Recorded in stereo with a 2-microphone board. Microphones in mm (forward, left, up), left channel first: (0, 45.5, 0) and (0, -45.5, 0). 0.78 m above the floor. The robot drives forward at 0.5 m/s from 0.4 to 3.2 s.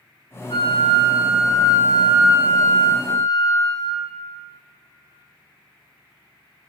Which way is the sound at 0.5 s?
65° left (ahead or behind).